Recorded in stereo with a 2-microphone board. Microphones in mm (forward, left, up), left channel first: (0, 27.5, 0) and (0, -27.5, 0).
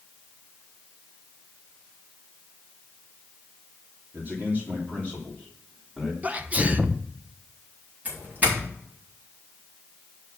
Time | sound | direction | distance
4.1 | a man speaking | 40° right (ahead or behind) | 2.5 m
6.2 | a sneeze | 25° right (ahead or behind) | 0.8 m
8.1 | a doorbell | 30° right (ahead or behind) | 3.5 m